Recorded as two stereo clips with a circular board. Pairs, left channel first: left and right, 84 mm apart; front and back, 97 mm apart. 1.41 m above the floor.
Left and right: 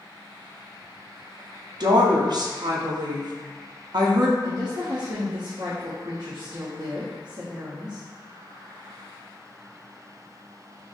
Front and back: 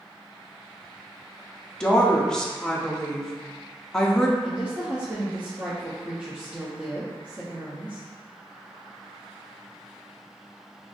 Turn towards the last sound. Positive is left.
turn(degrees=-105)